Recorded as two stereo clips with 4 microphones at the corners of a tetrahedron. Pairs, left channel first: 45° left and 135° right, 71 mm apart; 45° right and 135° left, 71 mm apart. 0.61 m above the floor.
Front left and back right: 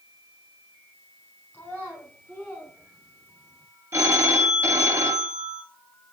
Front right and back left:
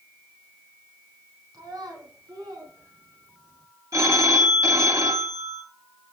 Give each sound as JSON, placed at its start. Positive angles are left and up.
{"t": 1.5, "sound": "a child speaking", "azimuth_deg": 115, "distance_m": 4.0}
{"t": 3.9, "sound": "a phone ringing", "azimuth_deg": 175, "distance_m": 1.8}